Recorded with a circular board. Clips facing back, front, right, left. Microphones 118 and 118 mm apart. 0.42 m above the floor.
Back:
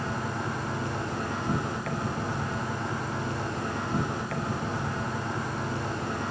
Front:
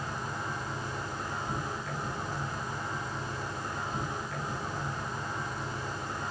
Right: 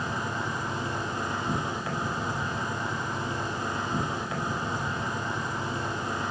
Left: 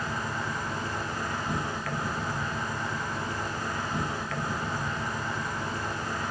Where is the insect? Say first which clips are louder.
Back 5 dB, right 1 dB; 160° right, 3 m.